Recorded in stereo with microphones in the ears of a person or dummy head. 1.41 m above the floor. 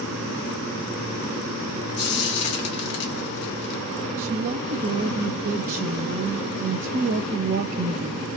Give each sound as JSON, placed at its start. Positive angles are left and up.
{"t": 2.0, "sound": "frying", "side_deg": 80, "distance_m": 1.4}
{"t": 4.2, "sound": "a woman speaking", "side_deg": -45, "distance_m": 0.7}